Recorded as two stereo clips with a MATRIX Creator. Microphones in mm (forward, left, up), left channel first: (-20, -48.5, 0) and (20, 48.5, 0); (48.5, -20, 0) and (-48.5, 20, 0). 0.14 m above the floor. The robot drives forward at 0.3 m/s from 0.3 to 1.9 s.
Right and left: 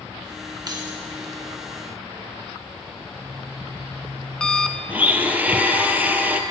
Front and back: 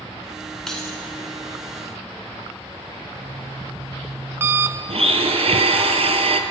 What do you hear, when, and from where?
0.7 s keys jangling: 60° left, 1.2 m; by 1.0 s 70° left, 1.2 m
3.1 s an alarm clock: 170° left, 0.5 m
4.9 s a blender: 140° left, 0.6 m